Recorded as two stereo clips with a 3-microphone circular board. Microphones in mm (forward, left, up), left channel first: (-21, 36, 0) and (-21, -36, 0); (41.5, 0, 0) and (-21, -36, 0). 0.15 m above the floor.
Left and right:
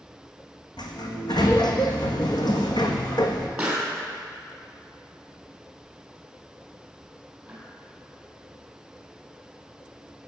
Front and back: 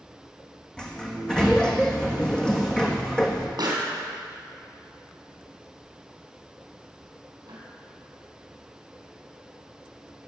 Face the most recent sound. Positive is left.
turn(degrees=-170)